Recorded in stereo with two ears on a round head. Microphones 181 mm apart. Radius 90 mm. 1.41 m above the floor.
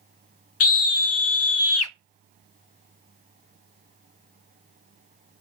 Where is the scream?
75° left (ahead or behind), 0.7 m.